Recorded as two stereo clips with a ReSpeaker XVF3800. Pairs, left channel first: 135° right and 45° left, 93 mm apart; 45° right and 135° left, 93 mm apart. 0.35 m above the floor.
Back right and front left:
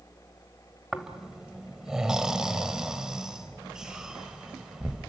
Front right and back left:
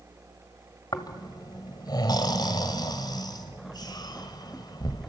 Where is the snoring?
35° right, 1.7 m.